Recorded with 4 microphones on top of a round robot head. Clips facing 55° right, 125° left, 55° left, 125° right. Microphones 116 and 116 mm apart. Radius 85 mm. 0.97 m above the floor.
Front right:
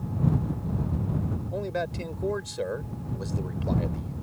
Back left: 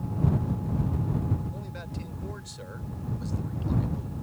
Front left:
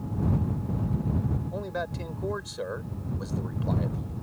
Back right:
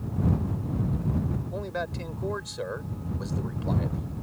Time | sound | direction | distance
1.5 | a man speaking | 35° right | ?